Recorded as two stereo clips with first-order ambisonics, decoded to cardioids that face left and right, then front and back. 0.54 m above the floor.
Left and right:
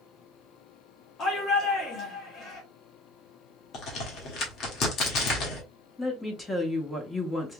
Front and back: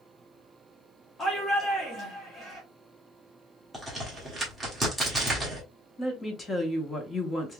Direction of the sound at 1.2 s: 65° left.